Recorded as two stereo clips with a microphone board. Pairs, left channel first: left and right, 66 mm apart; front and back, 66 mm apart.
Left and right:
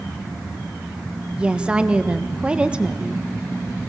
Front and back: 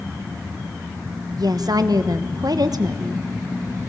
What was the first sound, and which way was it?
A woman speaking, 165° right.